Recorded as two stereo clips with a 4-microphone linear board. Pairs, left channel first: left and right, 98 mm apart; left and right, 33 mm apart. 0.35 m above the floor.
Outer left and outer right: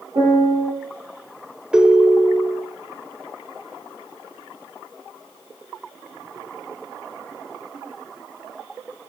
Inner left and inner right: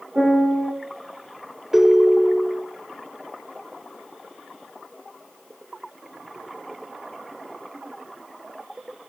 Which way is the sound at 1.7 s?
10° right (ahead or behind).